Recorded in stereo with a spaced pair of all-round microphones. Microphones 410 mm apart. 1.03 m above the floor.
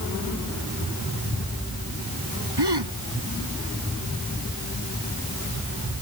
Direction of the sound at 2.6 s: 75° right (ahead or behind).